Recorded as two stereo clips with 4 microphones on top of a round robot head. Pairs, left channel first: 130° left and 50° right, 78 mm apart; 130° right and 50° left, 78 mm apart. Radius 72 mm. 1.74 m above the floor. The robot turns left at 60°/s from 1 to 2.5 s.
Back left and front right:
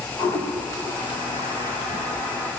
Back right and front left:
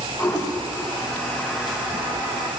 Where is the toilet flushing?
170° left, 7.5 m; by 2.5 s 80° left, 7.5 m.